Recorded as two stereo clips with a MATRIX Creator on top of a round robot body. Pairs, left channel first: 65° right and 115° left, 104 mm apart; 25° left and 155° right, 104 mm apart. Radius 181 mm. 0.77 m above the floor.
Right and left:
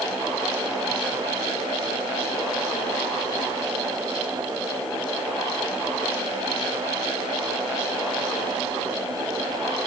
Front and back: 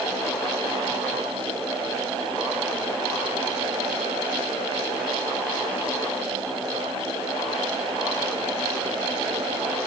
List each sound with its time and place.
Only background noise.